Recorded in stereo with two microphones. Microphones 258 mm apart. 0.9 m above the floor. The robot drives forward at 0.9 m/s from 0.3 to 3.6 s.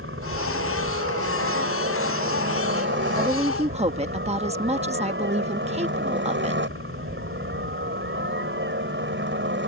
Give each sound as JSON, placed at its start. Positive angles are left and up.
{"t": 0.0, "sound": "a helicopter", "side_deg": -50}
{"t": 3.1, "sound": "a woman speaking", "side_deg": -20}